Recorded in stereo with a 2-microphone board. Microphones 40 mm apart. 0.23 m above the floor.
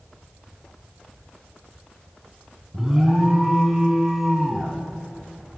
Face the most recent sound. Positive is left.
turn(degrees=-5)  # may be behind; listen again after turning